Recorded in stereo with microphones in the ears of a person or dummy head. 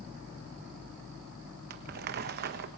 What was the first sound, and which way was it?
Crumpling, 50° right (ahead or behind).